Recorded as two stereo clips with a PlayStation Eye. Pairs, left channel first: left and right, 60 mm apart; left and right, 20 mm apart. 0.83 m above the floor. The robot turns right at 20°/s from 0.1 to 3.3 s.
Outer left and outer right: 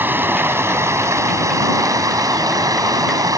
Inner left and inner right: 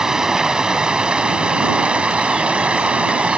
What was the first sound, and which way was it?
Running water, 145° right.